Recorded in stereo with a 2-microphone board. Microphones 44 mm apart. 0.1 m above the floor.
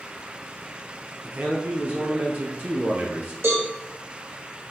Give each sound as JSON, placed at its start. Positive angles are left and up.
{"t": 1.2, "sound": "a man speaking", "side_deg": -45, "distance_m": 2.0}
{"t": 3.4, "sound": "a cowbell", "side_deg": -75, "distance_m": 3.0}